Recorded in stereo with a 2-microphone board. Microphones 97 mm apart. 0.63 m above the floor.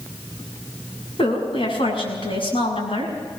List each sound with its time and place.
1.2 s a woman speaking: 70° left (ahead or behind), 6.5 m